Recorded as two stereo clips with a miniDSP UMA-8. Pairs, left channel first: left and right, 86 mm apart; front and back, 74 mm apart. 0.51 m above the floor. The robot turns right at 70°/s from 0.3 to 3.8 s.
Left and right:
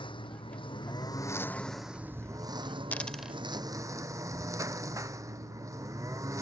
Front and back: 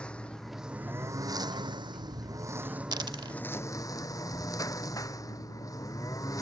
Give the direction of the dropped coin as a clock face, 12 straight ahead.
7 o'clock.